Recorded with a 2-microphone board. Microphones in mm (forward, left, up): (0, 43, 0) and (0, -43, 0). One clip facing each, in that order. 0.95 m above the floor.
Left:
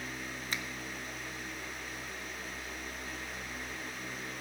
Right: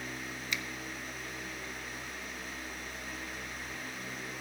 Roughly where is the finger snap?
Left.